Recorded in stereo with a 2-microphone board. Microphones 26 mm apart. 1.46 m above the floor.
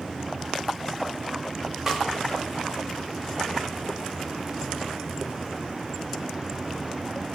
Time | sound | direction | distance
1.9 | a snare drum | 20° right (ahead or behind) | 3.5 m